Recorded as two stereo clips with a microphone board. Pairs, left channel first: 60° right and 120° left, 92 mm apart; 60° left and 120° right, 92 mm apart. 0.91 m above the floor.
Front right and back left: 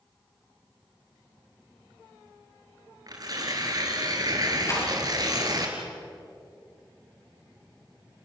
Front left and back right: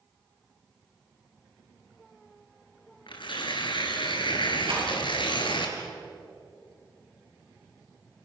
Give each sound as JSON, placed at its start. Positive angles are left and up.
{"t": 3.1, "sound": "tearing paper", "azimuth_deg": 80, "distance_m": 3.5}
{"t": 4.7, "sound": "a rattle", "azimuth_deg": -115, "distance_m": 8.5}